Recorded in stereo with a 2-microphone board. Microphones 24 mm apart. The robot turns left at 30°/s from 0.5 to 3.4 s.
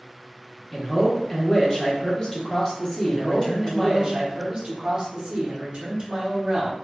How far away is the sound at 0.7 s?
About 0.8 m.